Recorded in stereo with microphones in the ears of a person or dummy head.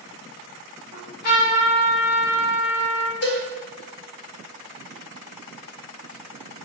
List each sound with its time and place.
0.9 s a trumpet: 50° left (ahead or behind), 1.3 m
3.2 s a cowbell: 75° left (ahead or behind), 1.5 m